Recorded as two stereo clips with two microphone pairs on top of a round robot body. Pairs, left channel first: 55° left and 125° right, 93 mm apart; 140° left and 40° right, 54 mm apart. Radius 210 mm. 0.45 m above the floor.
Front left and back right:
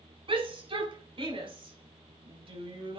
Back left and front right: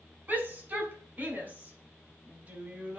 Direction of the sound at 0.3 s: 100° right.